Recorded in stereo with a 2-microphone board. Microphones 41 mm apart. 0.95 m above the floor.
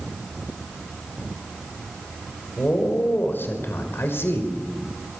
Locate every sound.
2.6 s a man speaking: 50° left (ahead or behind), 4.5 m; by 4.5 s 80° left, 5 m